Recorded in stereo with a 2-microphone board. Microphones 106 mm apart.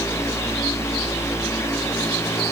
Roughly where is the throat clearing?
No throat clearing in this recording.